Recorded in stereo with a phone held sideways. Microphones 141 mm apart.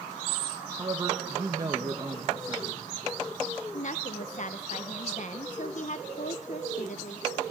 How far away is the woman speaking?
About 0.7 m.